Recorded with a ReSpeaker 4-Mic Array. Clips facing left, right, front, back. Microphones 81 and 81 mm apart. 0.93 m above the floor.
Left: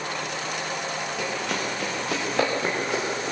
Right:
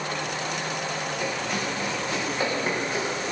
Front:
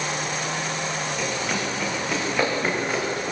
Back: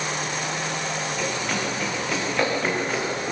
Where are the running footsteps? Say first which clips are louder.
Left 1 dB, even; 85° left, 9.5 m.